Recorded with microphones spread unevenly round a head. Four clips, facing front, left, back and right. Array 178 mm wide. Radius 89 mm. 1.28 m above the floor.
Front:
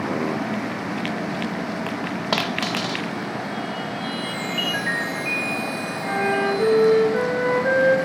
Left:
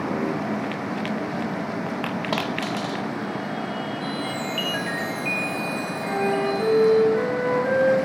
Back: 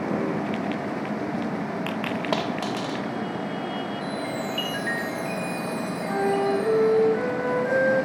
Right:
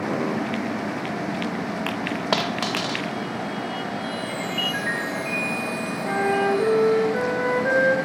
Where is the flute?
20° right, 3 m.